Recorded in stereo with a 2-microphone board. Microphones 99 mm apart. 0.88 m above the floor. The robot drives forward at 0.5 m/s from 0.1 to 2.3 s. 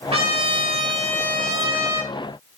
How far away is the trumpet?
About 1.0 m.